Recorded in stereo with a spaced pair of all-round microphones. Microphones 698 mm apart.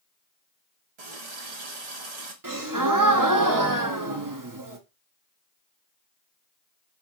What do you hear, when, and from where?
1.0 s a running tap: 65° right (ahead or behind), 0.9 m
2.4 s a gasp: 30° right (ahead or behind), 0.6 m